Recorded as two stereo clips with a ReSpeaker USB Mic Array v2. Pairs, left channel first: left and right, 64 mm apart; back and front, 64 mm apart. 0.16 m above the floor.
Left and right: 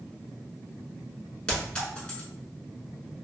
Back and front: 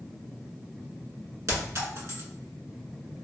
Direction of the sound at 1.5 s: 20° left.